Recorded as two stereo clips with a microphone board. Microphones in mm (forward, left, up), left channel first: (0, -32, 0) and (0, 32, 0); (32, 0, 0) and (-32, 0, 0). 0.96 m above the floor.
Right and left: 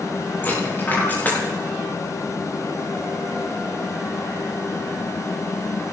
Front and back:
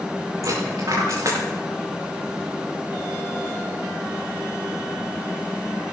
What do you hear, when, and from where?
0.4 s a dropped coin: 150° right, 6.5 m